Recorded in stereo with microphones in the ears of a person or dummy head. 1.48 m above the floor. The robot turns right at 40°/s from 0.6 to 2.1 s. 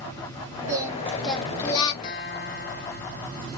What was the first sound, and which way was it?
Singing, 20° right.